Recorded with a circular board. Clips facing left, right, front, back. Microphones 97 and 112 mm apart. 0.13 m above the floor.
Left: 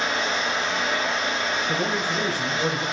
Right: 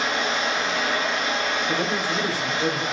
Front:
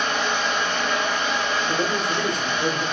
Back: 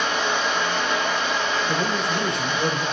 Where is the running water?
95° right, 1.2 m.